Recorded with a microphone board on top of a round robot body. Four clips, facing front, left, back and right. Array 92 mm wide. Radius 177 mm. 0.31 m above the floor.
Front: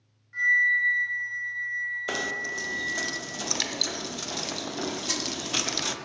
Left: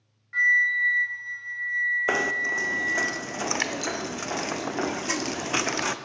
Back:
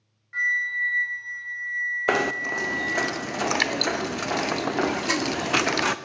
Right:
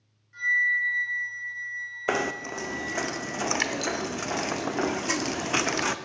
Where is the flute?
120° left, 2.5 m.